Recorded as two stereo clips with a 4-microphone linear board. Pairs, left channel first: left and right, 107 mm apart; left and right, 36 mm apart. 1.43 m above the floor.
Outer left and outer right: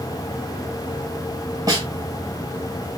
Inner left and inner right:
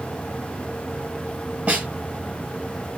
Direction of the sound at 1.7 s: 35° right (ahead or behind).